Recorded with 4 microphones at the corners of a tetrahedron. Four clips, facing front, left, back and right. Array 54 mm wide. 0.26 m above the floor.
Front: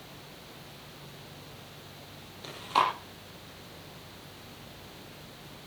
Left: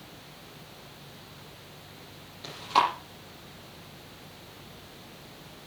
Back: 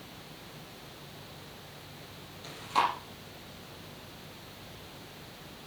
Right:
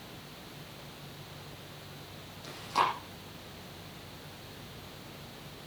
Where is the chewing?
60° left, 7.5 m.